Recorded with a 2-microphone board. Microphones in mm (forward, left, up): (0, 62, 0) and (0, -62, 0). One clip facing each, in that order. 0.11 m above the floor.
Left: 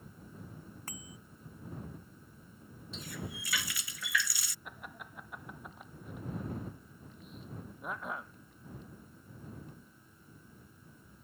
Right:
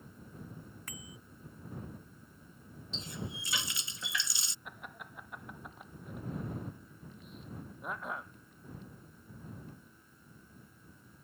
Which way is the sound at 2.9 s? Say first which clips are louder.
Even; 25° right (ahead or behind).